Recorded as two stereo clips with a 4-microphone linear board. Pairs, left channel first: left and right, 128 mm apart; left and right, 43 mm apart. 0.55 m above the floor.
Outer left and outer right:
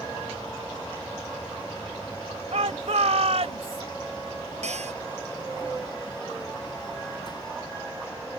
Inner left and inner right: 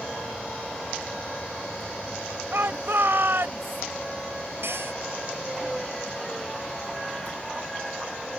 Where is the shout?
70° right (ahead or behind); by 3.8 s 60° right (ahead or behind).